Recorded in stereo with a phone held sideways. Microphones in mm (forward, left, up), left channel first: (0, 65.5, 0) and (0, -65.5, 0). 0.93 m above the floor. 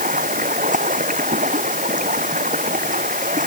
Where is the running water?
90° right.